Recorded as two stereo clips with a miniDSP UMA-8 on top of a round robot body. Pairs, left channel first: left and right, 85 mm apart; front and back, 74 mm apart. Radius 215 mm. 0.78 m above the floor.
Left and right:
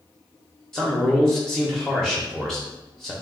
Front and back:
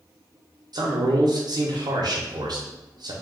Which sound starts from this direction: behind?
A man speaking, at 0.7 s.